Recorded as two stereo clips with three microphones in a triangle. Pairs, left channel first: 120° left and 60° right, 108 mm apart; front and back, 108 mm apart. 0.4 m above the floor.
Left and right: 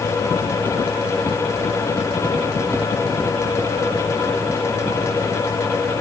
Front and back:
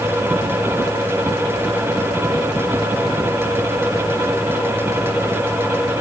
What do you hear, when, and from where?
Only background noise.